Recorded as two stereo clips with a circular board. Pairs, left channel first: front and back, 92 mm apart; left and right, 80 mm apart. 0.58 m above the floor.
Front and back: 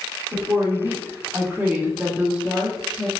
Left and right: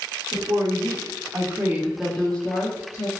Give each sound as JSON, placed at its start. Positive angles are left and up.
{"t": 0.3, "sound": "a woman speaking", "azimuth_deg": -110, "distance_m": 1.3}